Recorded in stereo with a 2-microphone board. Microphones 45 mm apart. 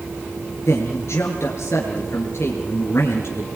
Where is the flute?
No flute in this recording.